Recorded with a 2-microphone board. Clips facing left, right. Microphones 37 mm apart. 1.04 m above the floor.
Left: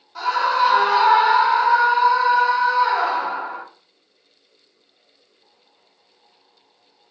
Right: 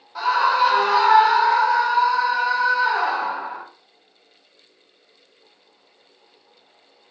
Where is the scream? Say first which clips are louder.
Right 1 dB; 10° right (ahead or behind), 0.7 m; by 3.6 s 20° left (ahead or behind), 2.5 m.